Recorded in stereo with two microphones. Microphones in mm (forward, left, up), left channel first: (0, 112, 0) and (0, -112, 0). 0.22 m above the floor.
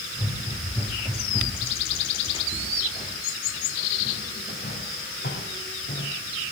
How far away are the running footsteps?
About 4.5 m.